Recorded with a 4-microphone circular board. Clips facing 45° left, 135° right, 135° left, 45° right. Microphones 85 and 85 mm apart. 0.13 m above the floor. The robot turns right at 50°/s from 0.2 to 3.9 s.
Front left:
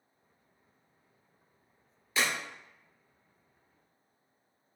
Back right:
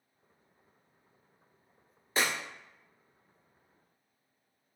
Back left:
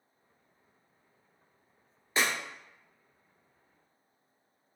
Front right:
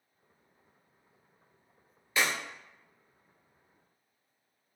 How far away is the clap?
About 1.7 m.